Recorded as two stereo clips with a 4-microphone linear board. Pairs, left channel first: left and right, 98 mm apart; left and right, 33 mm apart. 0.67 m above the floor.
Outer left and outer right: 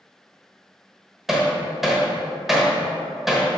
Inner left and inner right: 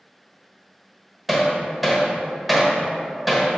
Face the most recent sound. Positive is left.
turn(degrees=-5)  # may be behind; listen again after turning